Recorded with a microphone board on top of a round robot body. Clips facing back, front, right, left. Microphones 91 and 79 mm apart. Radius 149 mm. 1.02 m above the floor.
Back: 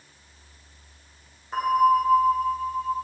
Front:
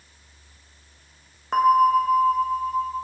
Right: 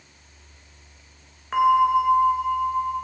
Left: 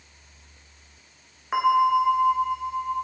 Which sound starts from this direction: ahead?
A bell, at 1.5 s.